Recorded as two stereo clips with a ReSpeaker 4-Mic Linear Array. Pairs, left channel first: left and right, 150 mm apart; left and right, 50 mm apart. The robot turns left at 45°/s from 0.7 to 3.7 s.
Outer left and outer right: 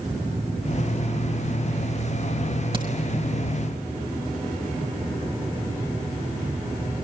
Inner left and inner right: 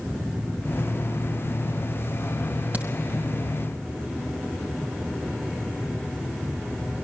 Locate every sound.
2.7 s a crack: 35° right (ahead or behind), 5.5 m; by 2.9 s 25° right (ahead or behind), 5.5 m